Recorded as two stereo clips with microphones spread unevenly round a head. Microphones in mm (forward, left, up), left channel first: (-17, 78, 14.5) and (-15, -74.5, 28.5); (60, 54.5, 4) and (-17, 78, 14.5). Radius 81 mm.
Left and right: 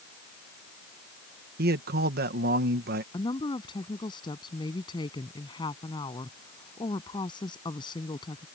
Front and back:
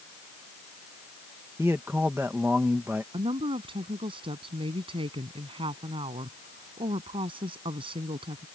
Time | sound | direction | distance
1.6 | a man speaking | 120° right | ?
3.1 | a woman speaking | 155° left | ?